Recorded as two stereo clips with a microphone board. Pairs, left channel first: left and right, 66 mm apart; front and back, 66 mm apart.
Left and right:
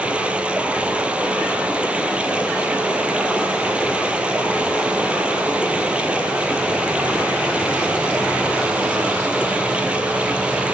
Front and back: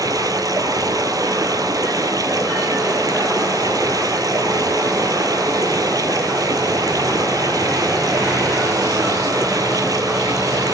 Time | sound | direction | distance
0.0 | running water | 160° right | 0.8 m